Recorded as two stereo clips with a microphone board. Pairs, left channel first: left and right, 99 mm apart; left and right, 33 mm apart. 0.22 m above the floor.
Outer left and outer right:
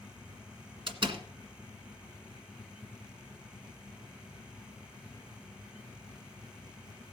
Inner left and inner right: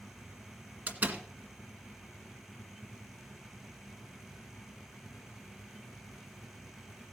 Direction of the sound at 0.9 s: 60° right (ahead or behind).